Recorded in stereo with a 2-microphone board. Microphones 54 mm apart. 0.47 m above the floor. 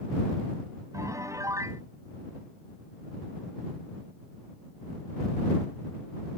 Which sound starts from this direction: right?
A piano, at 0.9 s.